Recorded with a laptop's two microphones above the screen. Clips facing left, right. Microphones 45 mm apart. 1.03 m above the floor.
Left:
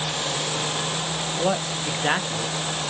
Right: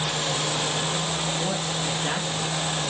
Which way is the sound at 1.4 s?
45° left (ahead or behind).